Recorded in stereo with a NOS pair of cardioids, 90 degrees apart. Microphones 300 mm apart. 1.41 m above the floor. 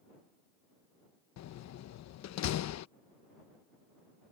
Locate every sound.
1.4 s a door slam: 65° left